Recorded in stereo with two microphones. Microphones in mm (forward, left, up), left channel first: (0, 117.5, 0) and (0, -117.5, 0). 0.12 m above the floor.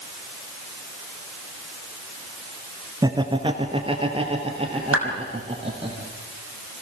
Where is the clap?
75° right (ahead or behind), 5 m.